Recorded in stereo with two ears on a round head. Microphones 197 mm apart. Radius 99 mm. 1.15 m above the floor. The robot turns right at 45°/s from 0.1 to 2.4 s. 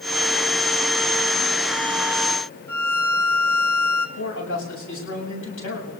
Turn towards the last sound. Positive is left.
turn(degrees=70)  # may be behind; listen again after turning